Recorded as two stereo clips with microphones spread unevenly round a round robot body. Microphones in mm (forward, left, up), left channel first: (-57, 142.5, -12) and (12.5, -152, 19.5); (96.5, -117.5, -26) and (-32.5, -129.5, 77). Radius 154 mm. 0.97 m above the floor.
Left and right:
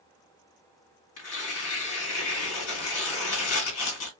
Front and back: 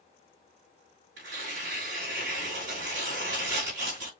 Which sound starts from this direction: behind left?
Tearing paper, at 1.2 s.